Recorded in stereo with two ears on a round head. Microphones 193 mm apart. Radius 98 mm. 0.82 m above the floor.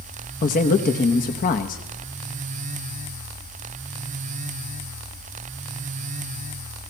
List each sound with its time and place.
0.4 s a man speaking: 40° left (ahead or behind), 0.9 m